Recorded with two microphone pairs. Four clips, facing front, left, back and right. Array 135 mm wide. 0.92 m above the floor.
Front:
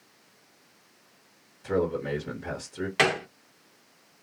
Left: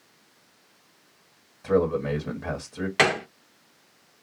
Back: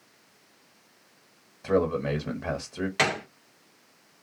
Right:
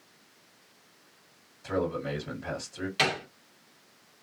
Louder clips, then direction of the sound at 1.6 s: Left 7 dB, back 2 dB; 155° left.